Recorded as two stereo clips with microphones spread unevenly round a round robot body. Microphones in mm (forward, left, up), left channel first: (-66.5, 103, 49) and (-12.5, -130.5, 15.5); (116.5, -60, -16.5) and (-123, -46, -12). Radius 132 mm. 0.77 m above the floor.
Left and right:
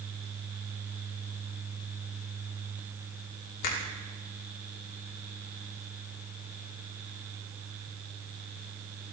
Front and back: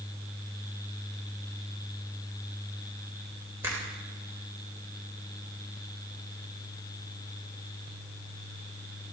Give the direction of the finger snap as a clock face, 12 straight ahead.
9 o'clock.